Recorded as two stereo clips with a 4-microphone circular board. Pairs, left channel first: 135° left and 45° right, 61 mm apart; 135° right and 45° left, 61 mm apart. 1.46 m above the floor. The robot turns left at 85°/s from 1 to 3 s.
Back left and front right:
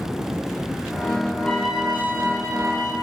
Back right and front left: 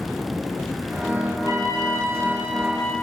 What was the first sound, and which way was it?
A trumpet, 60° left.